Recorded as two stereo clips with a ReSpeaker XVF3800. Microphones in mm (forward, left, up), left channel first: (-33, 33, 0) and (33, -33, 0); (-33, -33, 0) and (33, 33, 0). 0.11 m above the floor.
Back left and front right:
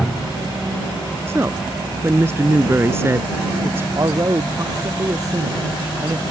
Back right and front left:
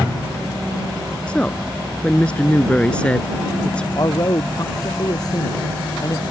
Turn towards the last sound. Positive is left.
turn(degrees=-90)